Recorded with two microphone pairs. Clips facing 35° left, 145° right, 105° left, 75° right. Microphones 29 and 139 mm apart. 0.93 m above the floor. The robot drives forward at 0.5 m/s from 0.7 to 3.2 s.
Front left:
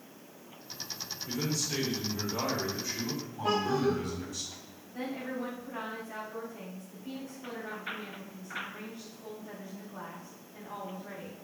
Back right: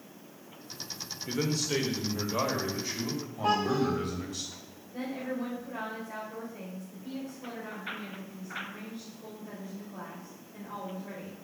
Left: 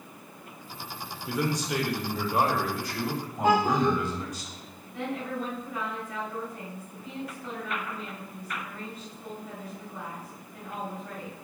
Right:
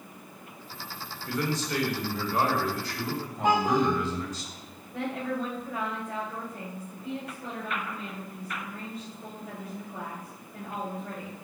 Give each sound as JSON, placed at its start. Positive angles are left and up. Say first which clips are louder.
{"t": 1.3, "sound": "a man speaking", "louder": "back right 3 dB, left 1 dB", "azimuth_deg": 180, "distance_m": 1.5}
{"t": 3.4, "sound": "a child speaking", "louder": "back right 1 dB, left 1 dB", "azimuth_deg": -175, "distance_m": 3.0}
{"t": 4.9, "sound": "a woman speaking", "louder": "back right 2 dB, right 1 dB", "azimuth_deg": -95, "distance_m": 2.5}